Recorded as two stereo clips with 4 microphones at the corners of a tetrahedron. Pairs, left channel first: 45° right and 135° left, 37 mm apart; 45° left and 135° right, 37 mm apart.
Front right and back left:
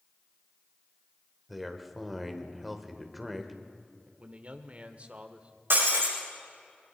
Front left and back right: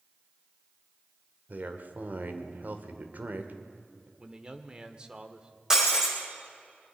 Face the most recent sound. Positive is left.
turn(degrees=150)